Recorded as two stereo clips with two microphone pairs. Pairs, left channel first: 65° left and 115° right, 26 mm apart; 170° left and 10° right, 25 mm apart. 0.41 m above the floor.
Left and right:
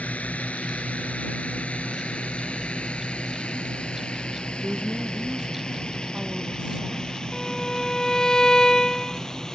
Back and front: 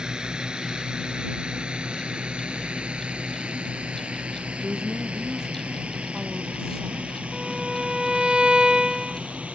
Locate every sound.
0.0 s a drone: 45° left; by 9.6 s straight ahead
4.6 s a woman speaking: 60° right
7.3 s a violin: 15° left